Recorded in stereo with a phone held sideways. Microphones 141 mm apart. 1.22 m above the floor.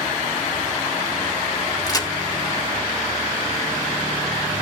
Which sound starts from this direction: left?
A crack, at 1.9 s.